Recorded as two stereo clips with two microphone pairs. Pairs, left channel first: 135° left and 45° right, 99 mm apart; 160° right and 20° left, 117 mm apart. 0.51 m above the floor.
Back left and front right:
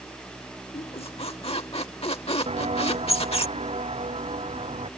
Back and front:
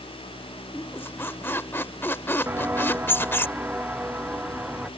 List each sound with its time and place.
0.7 s a squeak: 130° left
2.5 s footsteps: 55° right; by 4.9 s 65° right